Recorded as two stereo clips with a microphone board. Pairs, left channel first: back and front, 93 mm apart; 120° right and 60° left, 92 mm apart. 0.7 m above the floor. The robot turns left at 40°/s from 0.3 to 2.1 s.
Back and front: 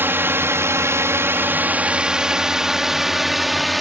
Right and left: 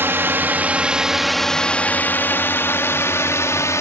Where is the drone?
30° left; by 3.8 s 90° right.